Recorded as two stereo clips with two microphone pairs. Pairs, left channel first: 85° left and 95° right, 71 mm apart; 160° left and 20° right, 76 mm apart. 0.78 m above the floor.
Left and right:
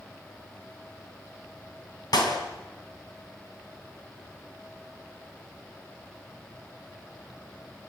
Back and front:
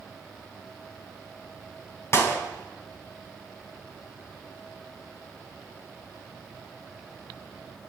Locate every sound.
2.1 s a clap: 105° left, 4.5 m